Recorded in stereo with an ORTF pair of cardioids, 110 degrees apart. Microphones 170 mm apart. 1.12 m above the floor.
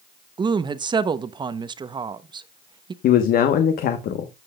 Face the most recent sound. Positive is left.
turn(degrees=65)